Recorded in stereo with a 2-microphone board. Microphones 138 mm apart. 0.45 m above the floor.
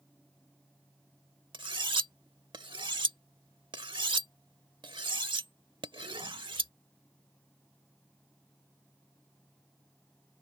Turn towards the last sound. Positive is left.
turn(degrees=-35)  # may be behind; listen again after turning